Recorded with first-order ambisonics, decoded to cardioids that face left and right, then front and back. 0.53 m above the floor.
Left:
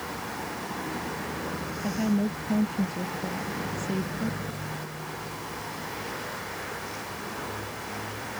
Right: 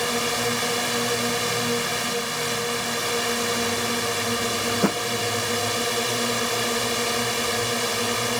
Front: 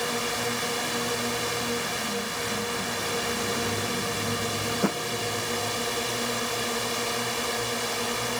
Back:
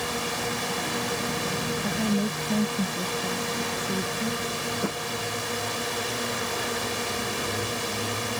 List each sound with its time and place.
0.0 s a drone: 85° right
1.8 s a woman speaking: 130° left
4.7 s a thud: 75° right